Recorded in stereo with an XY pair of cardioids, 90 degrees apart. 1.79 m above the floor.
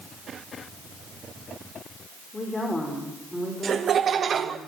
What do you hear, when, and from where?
2.3 s a woman speaking: 25° left, 5 m; by 4.6 s 5° right, 6.5 m
3.6 s laughter: 55° right, 1.0 m